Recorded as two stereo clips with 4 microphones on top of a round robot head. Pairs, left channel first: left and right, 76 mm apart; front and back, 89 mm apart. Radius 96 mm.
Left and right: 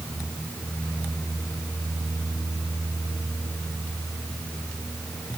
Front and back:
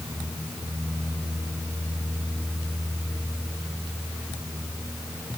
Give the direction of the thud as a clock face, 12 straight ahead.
I don't hear a thud.